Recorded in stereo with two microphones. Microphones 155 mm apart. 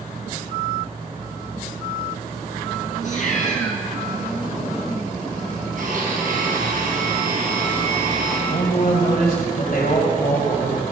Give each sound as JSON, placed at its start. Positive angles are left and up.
{"t": 3.0, "sound": "a cat meowing", "side_deg": 50, "distance_m": 2.5}
{"t": 5.8, "sound": "a blender", "side_deg": -65, "distance_m": 4.0}
{"t": 8.5, "sound": "a man speaking", "side_deg": 60, "distance_m": 2.0}